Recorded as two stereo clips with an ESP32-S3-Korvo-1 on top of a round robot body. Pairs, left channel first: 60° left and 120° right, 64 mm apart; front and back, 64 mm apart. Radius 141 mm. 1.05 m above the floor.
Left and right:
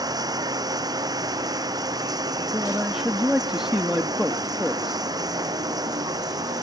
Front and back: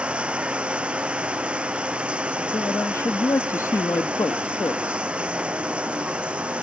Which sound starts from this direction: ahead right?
A man speaking, at 2.4 s.